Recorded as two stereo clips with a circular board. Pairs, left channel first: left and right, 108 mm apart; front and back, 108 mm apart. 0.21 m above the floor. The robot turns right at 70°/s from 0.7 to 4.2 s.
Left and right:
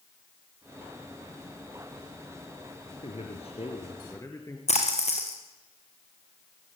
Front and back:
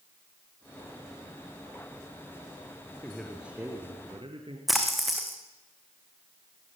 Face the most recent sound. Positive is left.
turn(degrees=90)